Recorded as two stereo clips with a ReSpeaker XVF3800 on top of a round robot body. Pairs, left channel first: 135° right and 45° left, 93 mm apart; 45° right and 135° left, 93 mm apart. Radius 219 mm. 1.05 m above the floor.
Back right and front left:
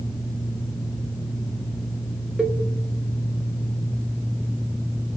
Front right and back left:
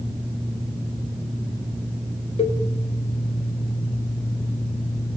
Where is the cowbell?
35° right, 1.6 m.